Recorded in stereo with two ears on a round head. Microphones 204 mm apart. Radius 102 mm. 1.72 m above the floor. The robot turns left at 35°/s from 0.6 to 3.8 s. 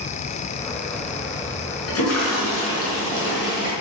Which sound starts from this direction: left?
A toilet flushing, at 1.9 s.